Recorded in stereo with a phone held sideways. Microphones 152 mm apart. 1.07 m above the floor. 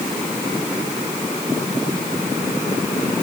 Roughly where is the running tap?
No running tap in this recording.